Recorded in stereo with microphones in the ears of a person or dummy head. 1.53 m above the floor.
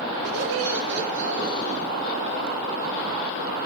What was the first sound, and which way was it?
Laughter, 85° right.